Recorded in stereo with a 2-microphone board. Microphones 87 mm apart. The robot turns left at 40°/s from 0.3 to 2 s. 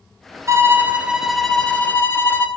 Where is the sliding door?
No sliding door in this recording.